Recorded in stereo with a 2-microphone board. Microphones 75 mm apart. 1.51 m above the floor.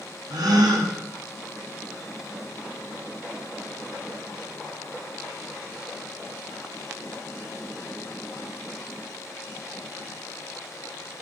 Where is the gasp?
70° right (ahead or behind), 0.6 m.